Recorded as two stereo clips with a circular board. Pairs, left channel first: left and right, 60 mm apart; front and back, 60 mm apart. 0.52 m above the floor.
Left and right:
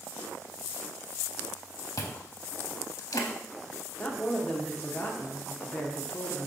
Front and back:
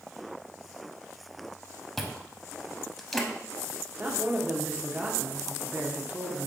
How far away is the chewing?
About 0.7 m.